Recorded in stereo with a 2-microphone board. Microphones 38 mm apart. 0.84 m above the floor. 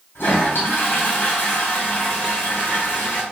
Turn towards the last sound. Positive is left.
turn(degrees=65)  # may be behind; listen again after turning